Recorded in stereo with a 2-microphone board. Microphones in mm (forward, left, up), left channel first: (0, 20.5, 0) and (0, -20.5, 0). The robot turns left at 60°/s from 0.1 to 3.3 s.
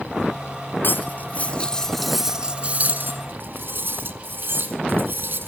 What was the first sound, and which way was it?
Cutlery clinking, 60° left (ahead or behind).